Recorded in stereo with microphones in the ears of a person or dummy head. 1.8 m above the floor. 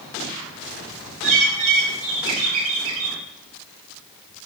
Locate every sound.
1.2 s a bird: 35° right (ahead or behind), 2 m